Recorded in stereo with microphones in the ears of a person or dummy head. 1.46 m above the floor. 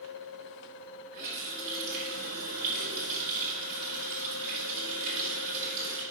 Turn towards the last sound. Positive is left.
turn(degrees=-55)  # may be behind; listen again after turning